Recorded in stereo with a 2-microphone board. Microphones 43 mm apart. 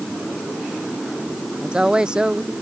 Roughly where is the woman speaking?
Right.